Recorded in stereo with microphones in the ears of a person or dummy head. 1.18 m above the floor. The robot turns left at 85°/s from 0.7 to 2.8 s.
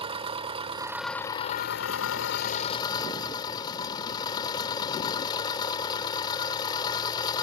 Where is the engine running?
155° right; by 7.4 s 25° left.